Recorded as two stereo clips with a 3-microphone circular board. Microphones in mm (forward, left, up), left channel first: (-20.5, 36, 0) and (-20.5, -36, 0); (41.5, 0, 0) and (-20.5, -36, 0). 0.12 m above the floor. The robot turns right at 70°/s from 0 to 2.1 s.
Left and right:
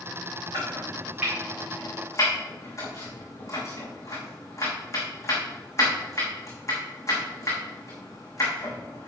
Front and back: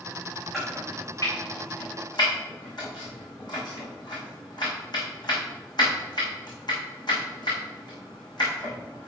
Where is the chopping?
65° right, 5 m; by 9.1 s 40° left, 5 m.